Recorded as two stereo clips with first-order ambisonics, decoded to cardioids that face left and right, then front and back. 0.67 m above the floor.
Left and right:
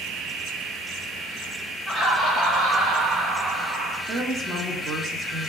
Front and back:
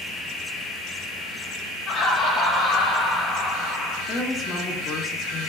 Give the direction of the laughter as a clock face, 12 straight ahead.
11 o'clock.